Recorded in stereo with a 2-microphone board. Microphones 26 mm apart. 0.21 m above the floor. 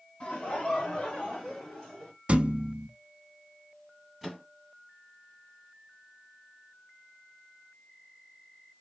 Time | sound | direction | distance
0.2 | laughter | 40° left (ahead or behind) | 1.8 m
2.3 | a thud | 40° right (ahead or behind) | 0.5 m
4.2 | a microwave | 5° right (ahead or behind) | 1.3 m